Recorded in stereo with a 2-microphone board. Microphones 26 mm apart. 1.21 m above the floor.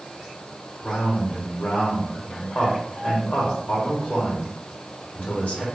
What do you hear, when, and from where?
0.8 s a man speaking: 65° left (ahead or behind), 1.2 m